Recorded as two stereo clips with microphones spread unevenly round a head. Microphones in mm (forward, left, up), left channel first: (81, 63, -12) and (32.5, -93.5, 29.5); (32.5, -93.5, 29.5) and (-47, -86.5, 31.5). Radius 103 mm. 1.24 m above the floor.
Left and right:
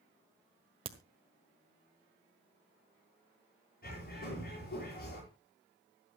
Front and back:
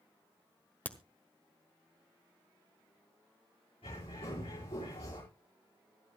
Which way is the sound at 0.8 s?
70° right.